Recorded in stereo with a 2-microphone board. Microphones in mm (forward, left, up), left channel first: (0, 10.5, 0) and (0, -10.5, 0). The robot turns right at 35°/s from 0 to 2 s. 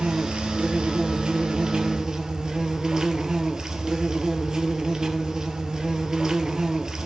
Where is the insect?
105° right, 2 m; by 7.1 s 35° right, 2 m.